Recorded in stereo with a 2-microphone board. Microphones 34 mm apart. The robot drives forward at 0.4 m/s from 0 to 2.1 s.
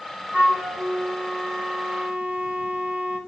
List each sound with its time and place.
0.3 s a flute: 65° right (ahead or behind), 2.5 m; by 3.2 s 60° right (ahead or behind), 3 m